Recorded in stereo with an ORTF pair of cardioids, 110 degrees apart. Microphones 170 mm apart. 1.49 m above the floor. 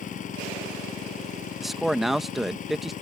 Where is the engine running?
50° left.